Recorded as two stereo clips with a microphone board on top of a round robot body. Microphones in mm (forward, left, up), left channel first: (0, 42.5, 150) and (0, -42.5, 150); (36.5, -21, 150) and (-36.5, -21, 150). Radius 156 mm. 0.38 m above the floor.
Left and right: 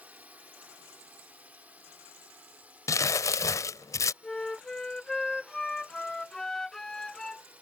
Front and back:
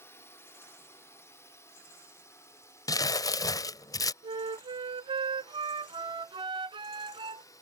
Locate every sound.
0.0 s a drone: 25° right; by 7.6 s 20° right
2.9 s crumpling: 35° left
4.2 s a flute: 175° left